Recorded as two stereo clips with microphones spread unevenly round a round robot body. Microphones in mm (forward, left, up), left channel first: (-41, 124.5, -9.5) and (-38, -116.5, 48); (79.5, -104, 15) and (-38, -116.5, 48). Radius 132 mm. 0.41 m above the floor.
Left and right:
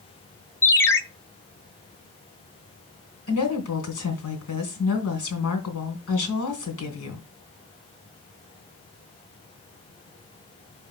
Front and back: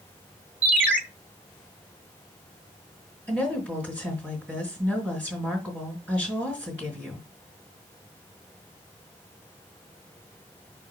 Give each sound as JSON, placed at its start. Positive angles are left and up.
{"t": 0.6, "sound": "a ringtone", "azimuth_deg": 95, "distance_m": 0.7}
{"t": 3.3, "sound": "a woman speaking", "azimuth_deg": 100, "distance_m": 3.0}